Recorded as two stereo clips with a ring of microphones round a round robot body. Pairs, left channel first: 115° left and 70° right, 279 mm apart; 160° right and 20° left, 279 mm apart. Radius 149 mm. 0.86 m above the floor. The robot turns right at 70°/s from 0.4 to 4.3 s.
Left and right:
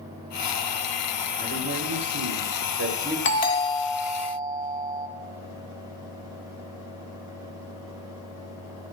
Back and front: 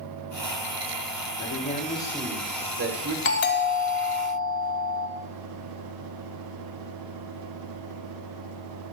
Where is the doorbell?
160° left, 1.8 m; by 5.1 s 130° right, 1.8 m.